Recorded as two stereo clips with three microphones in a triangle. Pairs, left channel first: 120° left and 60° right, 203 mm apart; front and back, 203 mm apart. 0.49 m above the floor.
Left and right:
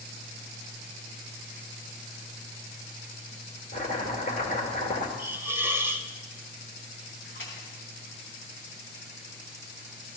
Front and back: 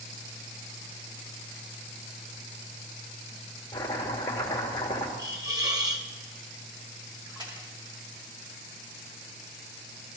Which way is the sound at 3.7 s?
75° left.